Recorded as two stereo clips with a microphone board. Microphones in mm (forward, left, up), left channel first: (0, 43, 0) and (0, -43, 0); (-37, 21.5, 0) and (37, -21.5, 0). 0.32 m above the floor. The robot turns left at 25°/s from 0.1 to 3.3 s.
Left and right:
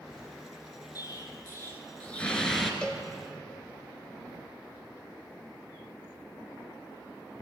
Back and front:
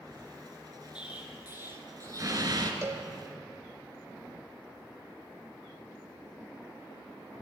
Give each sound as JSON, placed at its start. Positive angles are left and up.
{"t": 0.9, "sound": "an explosion", "azimuth_deg": 45, "distance_m": 1.4}
{"t": 2.8, "sound": "a cowbell", "azimuth_deg": 15, "distance_m": 0.7}